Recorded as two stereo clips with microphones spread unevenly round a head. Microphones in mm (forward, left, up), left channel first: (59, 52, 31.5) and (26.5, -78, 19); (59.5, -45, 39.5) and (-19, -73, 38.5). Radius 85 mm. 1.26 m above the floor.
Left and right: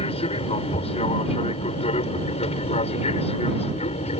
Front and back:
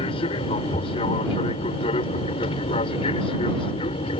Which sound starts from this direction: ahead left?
An aircraft, at 0.0 s.